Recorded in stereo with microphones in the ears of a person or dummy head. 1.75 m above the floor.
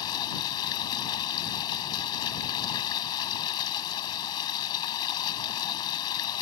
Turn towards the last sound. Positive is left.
turn(degrees=25)  # may be behind; listen again after turning